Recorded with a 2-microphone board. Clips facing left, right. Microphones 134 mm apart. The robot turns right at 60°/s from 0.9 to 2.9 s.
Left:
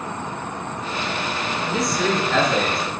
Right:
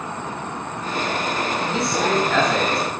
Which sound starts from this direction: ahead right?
A man speaking, at 1.6 s.